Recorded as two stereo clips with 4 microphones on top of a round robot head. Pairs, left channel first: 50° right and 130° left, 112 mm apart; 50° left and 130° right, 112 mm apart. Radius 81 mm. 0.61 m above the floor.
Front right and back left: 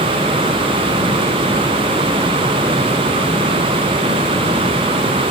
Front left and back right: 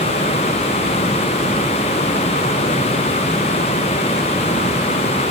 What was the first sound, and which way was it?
Only background noise.